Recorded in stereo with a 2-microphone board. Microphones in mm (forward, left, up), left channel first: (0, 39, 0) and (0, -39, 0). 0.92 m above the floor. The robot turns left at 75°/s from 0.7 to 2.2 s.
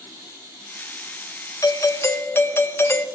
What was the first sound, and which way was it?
A doorbell, 90° left.